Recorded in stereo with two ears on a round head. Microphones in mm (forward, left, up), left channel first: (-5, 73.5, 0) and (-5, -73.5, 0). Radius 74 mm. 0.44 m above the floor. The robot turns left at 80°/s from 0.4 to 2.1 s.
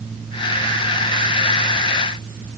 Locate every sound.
Only background noise.